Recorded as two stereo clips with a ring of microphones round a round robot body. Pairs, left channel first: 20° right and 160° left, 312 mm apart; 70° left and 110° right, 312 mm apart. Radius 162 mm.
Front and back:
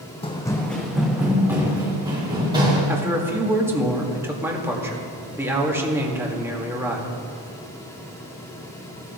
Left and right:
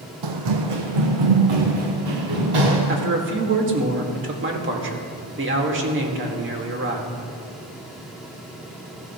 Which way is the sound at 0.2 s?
95° right.